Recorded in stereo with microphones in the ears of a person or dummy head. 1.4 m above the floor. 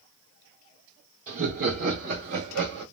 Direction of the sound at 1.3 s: 35° right (ahead or behind).